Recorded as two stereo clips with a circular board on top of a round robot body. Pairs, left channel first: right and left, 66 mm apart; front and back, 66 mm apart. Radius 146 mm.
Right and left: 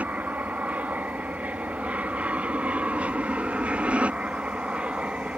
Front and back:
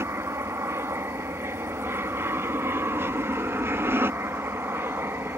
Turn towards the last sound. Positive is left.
turn(degrees=155)